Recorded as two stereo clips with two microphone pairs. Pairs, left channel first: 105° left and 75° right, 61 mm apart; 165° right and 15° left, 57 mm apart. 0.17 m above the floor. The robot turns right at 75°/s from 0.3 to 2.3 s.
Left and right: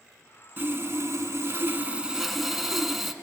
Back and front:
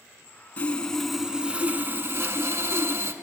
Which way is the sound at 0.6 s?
115° right.